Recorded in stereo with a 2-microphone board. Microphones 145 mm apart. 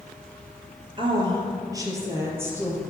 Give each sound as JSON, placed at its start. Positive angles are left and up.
{"t": 1.0, "sound": "a woman speaking", "side_deg": -35, "distance_m": 2.0}